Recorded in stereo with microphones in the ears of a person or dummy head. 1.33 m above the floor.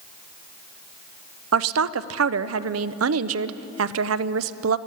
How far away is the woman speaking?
About 0.5 m.